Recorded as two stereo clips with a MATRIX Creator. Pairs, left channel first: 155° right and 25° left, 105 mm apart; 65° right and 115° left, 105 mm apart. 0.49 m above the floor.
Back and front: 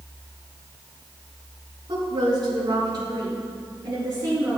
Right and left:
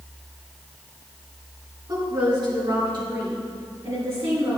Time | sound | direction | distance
1.9 | a woman speaking | 60° left | 3.5 m